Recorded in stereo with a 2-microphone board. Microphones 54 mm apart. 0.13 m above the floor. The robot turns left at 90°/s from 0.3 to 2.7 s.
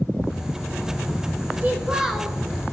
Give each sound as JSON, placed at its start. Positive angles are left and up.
{"t": 1.6, "sound": "a child speaking", "azimuth_deg": -120, "distance_m": 1.0}